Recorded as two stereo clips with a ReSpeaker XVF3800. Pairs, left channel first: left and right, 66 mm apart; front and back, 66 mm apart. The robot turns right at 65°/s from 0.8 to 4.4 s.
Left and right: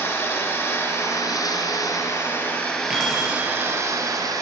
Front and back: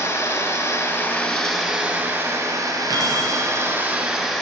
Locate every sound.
0.0 s running water: 40° left, 2.5 m; by 4.4 s 85° right, 2.5 m
2.9 s keys jangling: 15° right, 4 m; by 3.3 s 15° left, 4 m